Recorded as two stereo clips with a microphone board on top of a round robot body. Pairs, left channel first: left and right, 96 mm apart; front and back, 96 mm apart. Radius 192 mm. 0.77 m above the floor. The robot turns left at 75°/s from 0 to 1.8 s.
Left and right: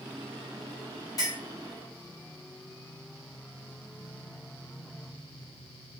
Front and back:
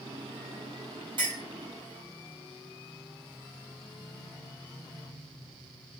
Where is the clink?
145° left, 0.9 m; by 1.4 s 130° left, 0.9 m.